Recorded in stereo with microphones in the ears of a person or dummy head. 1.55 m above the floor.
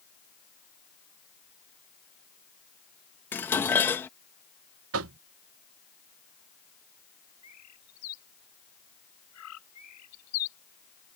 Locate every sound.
3.3 s dishes clattering: 5° left (ahead or behind)
4.9 s knocking: 80° right
7.4 s a bird: 85° left